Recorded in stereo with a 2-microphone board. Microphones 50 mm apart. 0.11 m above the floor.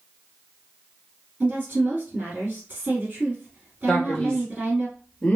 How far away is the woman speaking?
About 1.9 m.